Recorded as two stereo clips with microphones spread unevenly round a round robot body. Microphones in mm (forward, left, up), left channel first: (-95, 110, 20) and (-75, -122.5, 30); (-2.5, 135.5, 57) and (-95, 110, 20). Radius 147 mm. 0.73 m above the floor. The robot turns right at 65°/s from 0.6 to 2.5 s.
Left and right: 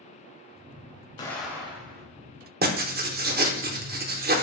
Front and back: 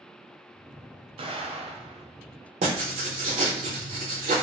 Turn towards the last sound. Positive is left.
turn(degrees=-135)